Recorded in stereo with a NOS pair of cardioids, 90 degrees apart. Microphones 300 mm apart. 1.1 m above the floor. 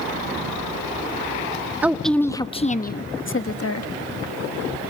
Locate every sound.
1.8 s a woman speaking: 5° right, 1.1 m; by 3.9 s 55° left, 1.3 m